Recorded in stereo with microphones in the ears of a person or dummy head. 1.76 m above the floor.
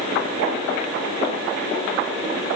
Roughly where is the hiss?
No hiss in this recording.